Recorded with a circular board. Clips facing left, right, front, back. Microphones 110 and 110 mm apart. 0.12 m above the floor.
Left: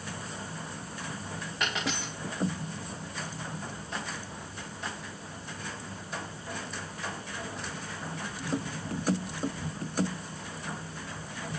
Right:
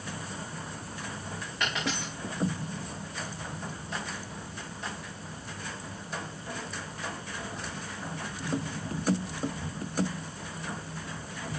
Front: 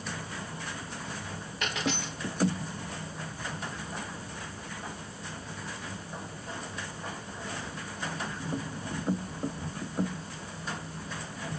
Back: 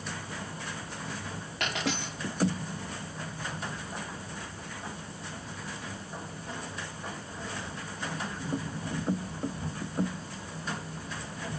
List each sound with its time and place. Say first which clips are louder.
1.6 s a dropped coin: right 1 dB, even; straight behind, 5 m